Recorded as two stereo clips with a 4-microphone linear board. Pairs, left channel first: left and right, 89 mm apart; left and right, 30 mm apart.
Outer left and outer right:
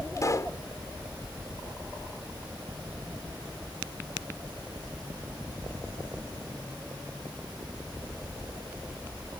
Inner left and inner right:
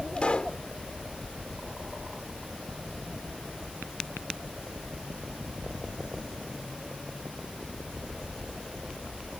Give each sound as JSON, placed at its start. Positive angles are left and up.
{"t": 0.2, "sound": "a pop", "side_deg": 40}